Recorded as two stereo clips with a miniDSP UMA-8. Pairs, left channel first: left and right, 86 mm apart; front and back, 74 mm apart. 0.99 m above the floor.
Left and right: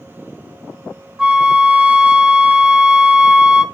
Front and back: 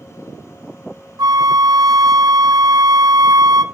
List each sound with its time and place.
1.2 s a flute: 170° right, 0.8 m